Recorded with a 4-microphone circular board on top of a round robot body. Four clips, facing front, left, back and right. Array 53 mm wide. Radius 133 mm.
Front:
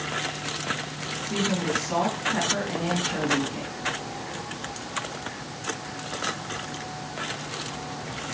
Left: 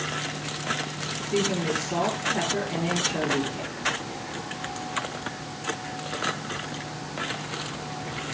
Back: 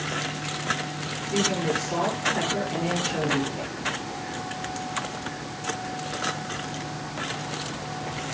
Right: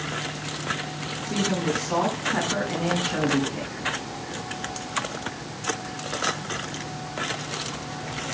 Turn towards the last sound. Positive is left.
turn(degrees=-70)